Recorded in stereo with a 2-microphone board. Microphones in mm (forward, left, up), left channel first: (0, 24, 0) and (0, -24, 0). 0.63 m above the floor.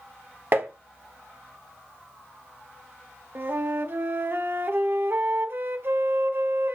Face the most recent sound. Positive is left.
turn(degrees=-45)  # may be behind; listen again after turning